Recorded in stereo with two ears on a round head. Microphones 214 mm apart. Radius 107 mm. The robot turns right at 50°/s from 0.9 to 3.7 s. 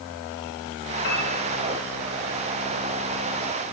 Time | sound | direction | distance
1.0 | a piano | 50° left (ahead or behind) | 7 m